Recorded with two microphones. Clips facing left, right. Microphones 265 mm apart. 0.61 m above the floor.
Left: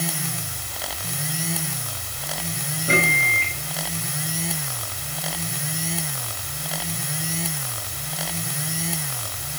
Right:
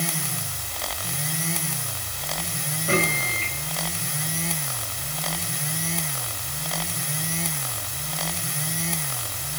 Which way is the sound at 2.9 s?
20° left (ahead or behind).